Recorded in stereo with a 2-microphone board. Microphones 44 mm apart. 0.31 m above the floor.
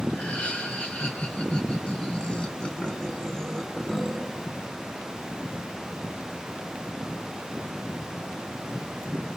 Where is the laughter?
35° left (ahead or behind), 4 m; by 4.5 s centre (ahead or behind), 1.9 m.